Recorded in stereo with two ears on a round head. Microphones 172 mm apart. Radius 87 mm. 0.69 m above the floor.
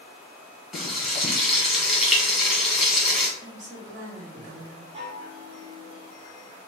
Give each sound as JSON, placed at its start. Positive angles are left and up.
{"t": 0.7, "sound": "frying", "side_deg": 0, "distance_m": 1.1}
{"t": 3.4, "sound": "a woman speaking", "side_deg": -40, "distance_m": 0.9}
{"t": 4.9, "sound": "a chime", "side_deg": -30, "distance_m": 1.6}